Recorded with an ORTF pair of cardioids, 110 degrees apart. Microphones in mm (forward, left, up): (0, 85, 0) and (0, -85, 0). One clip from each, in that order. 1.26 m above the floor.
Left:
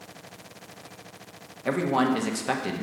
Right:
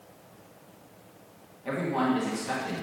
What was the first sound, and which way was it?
A man speaking, 50° left.